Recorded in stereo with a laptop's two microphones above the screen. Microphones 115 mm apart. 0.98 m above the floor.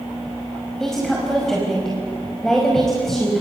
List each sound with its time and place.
0.8 s a woman speaking: 5° left (ahead or behind), 5 m